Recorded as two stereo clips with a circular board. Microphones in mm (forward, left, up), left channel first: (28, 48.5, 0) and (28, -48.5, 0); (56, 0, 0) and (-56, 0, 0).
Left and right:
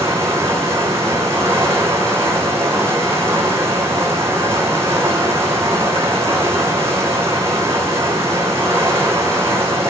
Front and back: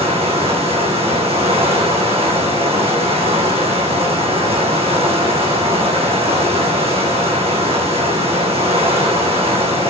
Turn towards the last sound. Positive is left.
turn(degrees=-155)